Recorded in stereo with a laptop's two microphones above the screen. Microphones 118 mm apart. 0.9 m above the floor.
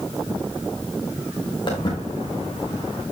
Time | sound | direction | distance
1.7 | footsteps | 40° left (ahead or behind) | 4 m